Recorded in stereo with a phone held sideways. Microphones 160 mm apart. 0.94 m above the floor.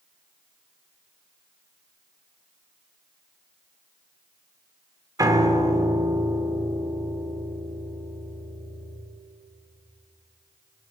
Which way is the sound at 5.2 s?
20° right (ahead or behind).